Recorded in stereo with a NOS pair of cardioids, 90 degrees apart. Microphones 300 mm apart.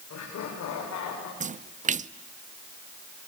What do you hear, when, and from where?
0.1 s laughter: 55° left, 6.5 m; by 1.3 s 65° left, 5.5 m
1.4 s a splash: 25° right, 0.7 m